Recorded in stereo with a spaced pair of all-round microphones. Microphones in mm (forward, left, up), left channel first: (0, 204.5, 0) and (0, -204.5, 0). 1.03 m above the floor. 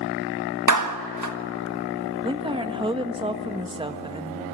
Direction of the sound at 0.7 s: 45° right (ahead or behind).